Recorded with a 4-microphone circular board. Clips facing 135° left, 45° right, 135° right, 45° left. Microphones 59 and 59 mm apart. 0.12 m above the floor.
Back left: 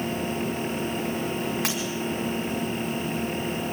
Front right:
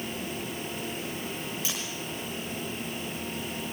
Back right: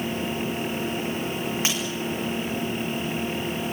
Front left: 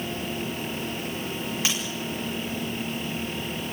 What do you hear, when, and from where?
1.6 s breaking glass: 165° left, 8 m